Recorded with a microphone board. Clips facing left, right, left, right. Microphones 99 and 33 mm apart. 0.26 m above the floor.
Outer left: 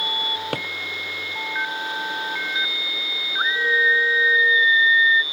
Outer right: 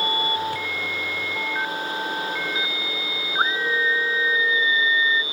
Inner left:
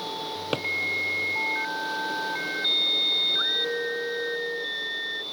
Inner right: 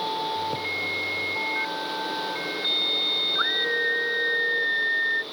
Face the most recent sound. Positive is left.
turn(degrees=-35)  # may be behind; listen again after turning